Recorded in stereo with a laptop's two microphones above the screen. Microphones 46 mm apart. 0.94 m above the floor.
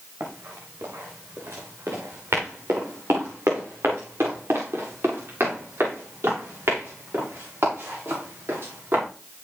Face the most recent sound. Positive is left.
turn(degrees=-60)  # may be behind; listen again after turning